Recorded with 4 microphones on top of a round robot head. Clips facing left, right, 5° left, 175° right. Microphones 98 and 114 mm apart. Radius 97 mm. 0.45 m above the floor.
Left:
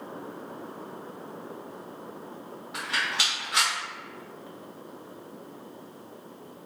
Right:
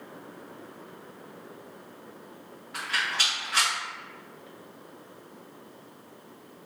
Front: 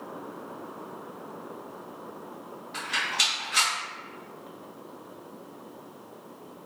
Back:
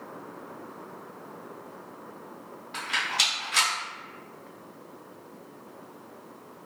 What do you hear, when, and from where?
2.7 s a rattle: 160° left, 1.8 m